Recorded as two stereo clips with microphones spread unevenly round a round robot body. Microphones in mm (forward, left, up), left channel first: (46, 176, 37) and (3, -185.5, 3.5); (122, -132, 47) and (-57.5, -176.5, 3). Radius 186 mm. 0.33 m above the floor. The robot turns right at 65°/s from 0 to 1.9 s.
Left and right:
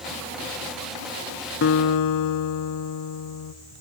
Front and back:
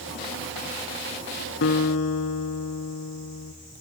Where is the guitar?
25° left, 0.8 m; by 3.5 s 45° left, 0.8 m.